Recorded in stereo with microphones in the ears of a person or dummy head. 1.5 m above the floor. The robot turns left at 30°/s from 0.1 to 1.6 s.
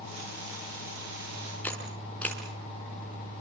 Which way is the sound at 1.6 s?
10° left (ahead or behind).